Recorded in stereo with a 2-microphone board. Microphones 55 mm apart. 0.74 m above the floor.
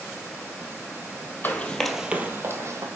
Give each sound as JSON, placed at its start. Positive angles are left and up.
{"t": 1.4, "sound": "running footsteps", "side_deg": 35, "distance_m": 1.2}